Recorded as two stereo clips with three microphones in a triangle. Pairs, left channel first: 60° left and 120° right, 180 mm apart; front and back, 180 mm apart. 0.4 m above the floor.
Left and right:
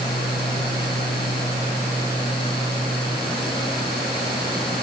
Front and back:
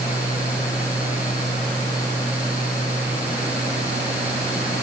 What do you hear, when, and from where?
Only background noise.